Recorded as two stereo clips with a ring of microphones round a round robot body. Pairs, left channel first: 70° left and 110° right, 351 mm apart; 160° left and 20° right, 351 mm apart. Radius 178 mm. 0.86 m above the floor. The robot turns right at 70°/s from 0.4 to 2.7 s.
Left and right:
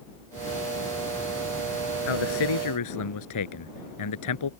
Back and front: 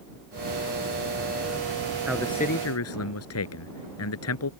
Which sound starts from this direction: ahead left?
A man speaking, at 2.1 s.